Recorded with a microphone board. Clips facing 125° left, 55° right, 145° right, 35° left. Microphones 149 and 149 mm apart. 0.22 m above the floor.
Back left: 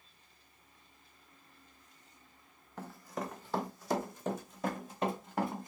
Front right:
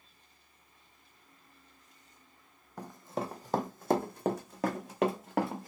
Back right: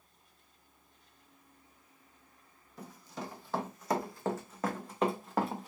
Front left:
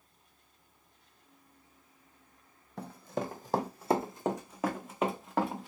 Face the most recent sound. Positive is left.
turn(degrees=-60)